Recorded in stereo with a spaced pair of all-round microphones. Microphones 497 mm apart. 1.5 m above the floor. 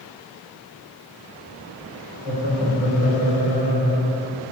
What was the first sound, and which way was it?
Laughter, 25° right (ahead or behind).